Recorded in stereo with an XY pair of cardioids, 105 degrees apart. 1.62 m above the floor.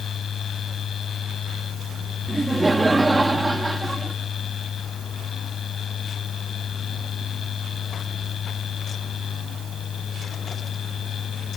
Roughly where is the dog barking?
I don't hear a dog barking.